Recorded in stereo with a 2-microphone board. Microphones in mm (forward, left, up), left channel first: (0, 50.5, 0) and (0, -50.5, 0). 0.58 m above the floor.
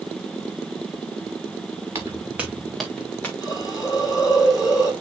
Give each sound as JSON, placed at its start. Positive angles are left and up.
{"t": 1.9, "sound": "footsteps", "side_deg": -30, "distance_m": 2.0}
{"t": 3.4, "sound": "a hiss", "side_deg": 35, "distance_m": 4.5}